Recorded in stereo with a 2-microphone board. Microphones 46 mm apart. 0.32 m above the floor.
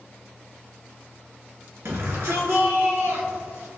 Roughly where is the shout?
Right.